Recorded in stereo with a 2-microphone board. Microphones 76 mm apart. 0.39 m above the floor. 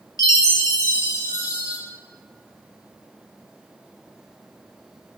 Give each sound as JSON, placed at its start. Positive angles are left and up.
{"t": 0.2, "sound": "a chime", "side_deg": 45, "distance_m": 0.7}